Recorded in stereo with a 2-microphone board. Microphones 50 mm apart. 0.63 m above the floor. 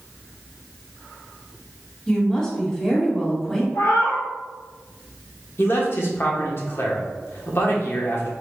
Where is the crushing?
No crushing in this recording.